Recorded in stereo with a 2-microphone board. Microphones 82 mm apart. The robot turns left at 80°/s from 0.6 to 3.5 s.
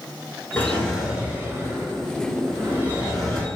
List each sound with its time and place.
0.6 s a drawer: 30° left, 0.7 m; by 3.5 s 165° left, 0.7 m